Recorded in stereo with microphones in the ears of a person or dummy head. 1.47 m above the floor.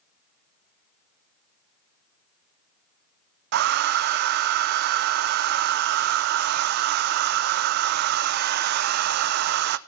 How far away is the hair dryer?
About 0.6 m.